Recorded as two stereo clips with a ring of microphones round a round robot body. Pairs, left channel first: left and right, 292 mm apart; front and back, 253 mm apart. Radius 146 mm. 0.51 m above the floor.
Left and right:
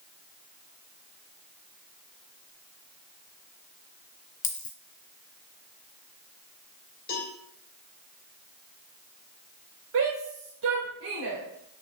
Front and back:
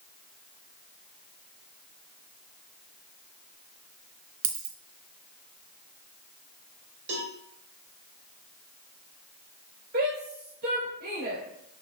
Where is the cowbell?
150° left, 3 m.